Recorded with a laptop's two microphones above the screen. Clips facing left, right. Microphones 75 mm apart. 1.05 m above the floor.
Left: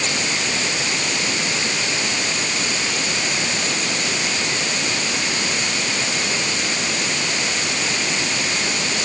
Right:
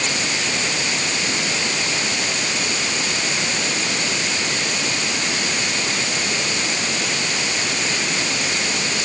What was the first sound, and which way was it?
Only background noise.